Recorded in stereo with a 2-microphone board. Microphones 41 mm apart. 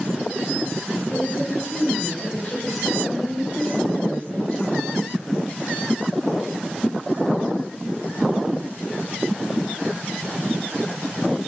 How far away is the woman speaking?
About 4 m.